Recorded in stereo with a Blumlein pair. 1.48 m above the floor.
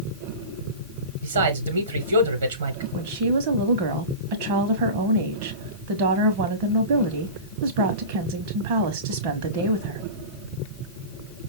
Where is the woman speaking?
45° right, 0.8 m.